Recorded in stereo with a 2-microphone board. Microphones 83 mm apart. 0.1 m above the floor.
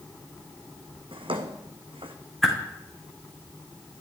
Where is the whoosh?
Centre (ahead or behind), 4 m.